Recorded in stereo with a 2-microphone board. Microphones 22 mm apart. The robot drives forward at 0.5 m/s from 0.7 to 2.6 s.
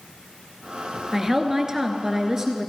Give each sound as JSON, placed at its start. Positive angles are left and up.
{"t": 1.1, "sound": "a woman speaking", "side_deg": -25, "distance_m": 1.2}